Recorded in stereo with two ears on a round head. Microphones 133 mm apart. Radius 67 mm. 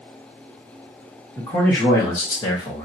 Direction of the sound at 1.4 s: 15° left (ahead or behind).